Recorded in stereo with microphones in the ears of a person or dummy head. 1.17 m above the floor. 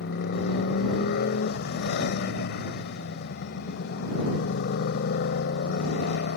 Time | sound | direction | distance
0.0 | a motorcycle | 60° left (ahead or behind) | ?